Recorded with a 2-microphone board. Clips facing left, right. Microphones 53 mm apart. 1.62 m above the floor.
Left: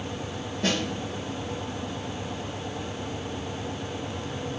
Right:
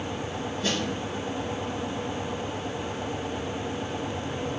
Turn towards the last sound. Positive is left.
turn(degrees=85)